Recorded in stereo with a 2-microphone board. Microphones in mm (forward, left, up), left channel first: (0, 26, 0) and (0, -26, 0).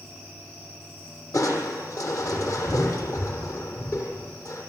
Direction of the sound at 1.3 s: 75° left (ahead or behind).